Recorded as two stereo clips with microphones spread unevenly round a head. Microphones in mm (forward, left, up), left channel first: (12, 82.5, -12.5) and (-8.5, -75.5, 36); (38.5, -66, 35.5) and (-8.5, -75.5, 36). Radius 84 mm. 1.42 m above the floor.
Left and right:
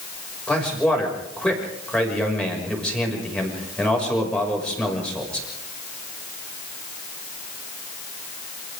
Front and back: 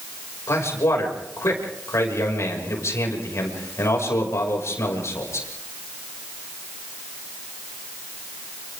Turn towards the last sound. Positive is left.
turn(degrees=-5)